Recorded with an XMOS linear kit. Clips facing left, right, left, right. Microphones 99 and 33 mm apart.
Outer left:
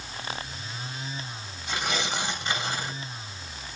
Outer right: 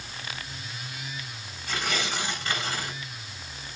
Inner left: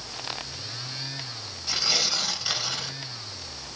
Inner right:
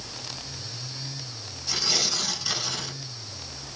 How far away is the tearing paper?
About 3.5 m.